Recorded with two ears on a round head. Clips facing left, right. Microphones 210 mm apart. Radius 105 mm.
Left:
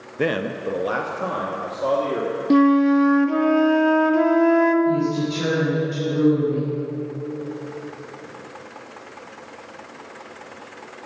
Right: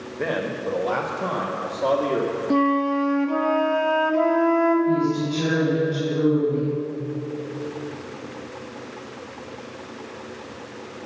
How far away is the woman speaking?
About 4.5 m.